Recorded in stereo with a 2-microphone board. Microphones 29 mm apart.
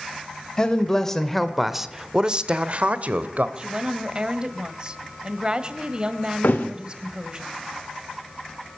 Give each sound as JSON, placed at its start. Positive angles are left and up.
{"t": 0.6, "sound": "a man speaking", "side_deg": 25, "distance_m": 1.9}
{"t": 3.6, "sound": "a woman speaking", "side_deg": -30, "distance_m": 2.0}
{"t": 6.4, "sound": "a thud", "side_deg": 80, "distance_m": 3.0}